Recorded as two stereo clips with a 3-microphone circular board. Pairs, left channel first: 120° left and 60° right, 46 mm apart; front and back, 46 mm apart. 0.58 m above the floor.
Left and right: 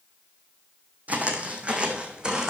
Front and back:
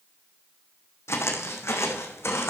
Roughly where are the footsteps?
Ahead.